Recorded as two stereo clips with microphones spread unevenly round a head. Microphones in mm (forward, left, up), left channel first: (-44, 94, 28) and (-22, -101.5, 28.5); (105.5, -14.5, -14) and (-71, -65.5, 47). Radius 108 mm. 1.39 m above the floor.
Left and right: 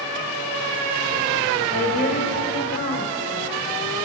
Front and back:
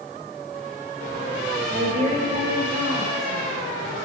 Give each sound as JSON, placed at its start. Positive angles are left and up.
{"t": 1.7, "sound": "a woman speaking", "azimuth_deg": 140, "distance_m": 4.0}